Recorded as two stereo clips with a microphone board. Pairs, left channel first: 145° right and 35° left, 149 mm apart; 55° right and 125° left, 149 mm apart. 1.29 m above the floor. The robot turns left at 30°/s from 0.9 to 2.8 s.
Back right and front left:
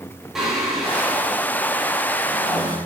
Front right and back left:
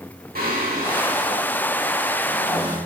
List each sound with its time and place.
0.3 s singing: 120° left, 2.5 m; by 2.8 s 65° left, 2.5 m